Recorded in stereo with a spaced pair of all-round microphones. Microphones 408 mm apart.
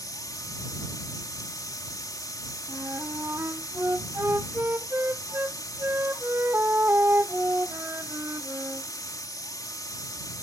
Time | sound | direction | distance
0.0 | a machine running | 10° left (ahead or behind) | ?
2.7 | a flute | 5° right (ahead or behind) | ?